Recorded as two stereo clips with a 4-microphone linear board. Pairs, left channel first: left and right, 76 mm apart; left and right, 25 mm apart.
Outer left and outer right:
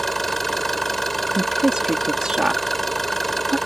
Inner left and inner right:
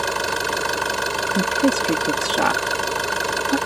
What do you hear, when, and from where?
0.0 s an engine running: 5° left (ahead or behind)
1.4 s a woman speaking: 10° right (ahead or behind)